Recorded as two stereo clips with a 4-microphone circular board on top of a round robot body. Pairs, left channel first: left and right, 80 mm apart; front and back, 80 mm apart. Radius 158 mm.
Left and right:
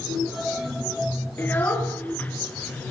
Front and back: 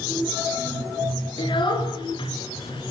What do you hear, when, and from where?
1.4 s a child speaking: 20° left, 6.5 m; by 2.9 s 15° left, 5.5 m